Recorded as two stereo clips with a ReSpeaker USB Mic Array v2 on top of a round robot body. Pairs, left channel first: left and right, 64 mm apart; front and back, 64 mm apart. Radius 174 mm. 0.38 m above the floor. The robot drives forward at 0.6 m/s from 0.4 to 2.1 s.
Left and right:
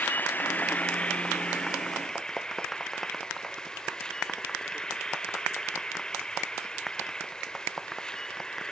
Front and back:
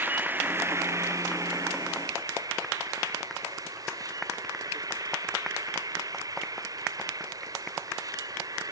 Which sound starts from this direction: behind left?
An insect, at 0.0 s.